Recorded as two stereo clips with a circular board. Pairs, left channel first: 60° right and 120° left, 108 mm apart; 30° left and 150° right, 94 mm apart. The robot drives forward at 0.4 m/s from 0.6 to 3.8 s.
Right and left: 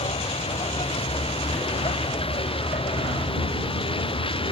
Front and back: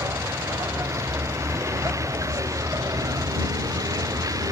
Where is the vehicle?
90° right; by 4.5 s 95° right.